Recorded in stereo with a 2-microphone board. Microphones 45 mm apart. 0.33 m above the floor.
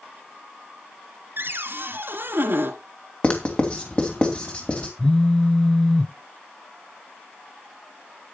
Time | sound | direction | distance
1.4 | a cupboard door | 55° right (ahead or behind) | 1.6 m
3.2 | writing | 25° left (ahead or behind) | 2.5 m
5.0 | a phone buzzing | 10° left (ahead or behind) | 0.5 m